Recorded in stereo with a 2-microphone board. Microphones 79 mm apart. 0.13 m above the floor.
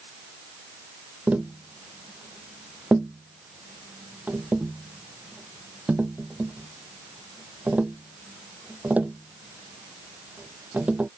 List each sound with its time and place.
1.3 s tapping: 20° right (ahead or behind)